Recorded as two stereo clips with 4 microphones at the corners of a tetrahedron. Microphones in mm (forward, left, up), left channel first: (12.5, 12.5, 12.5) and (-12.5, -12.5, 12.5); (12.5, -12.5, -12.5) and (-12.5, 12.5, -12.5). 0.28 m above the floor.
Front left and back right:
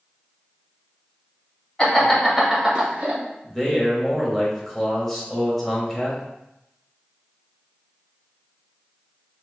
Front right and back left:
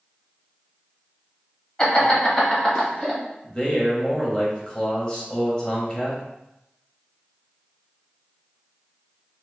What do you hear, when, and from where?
1.8 s laughter: 5° right, 1.2 m; by 3.2 s 115° right, 1.3 m
3.4 s a man speaking: 30° right, 1.1 m